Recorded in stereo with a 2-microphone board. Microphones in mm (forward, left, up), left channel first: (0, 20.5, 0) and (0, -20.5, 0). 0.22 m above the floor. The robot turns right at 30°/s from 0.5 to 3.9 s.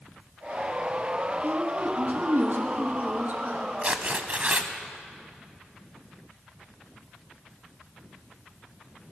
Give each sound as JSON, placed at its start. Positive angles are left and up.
{"t": 1.4, "sound": "a woman speaking", "azimuth_deg": -120, "distance_m": 2.5}
{"t": 3.8, "sound": "tearing paper", "side_deg": -30, "distance_m": 0.8}